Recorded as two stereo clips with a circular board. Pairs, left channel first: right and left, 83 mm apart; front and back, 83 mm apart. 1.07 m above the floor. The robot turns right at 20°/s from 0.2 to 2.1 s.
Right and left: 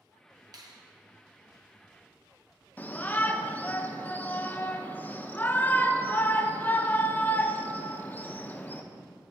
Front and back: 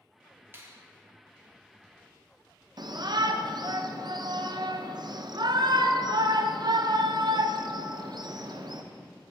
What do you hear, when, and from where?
0.5 s a finger snap: 120° left, 1.0 m; by 0.8 s 125° left, 1.0 m
2.8 s a shout: 160° right, 0.8 m